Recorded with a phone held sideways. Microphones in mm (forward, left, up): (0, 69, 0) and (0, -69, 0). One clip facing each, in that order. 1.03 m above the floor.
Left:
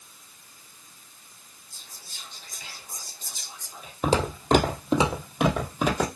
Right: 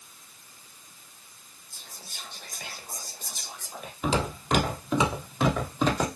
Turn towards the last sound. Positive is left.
turn(degrees=5)  # may be behind; listen again after turning